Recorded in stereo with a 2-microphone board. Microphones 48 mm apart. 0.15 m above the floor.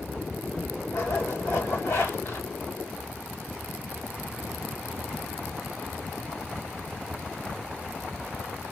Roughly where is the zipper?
Left.